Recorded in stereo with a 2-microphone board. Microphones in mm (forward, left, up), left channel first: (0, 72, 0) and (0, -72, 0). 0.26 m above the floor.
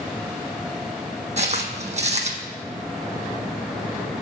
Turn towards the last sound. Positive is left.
turn(degrees=-50)  # may be behind; listen again after turning